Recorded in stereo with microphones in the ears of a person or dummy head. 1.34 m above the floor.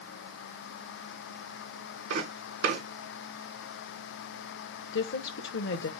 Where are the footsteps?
65° right (ahead or behind), 3 m.